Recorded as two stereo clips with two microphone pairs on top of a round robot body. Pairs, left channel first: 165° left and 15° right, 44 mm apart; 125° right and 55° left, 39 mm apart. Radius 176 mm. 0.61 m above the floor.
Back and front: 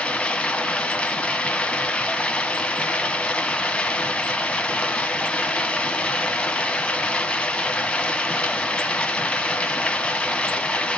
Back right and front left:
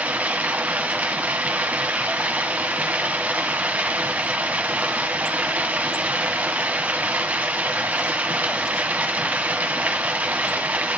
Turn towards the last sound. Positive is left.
turn(degrees=105)